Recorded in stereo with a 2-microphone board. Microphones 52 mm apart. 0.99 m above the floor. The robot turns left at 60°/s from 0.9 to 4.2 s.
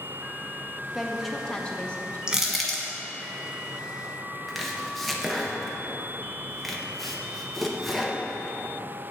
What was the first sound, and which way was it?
A woman speaking, 165° right.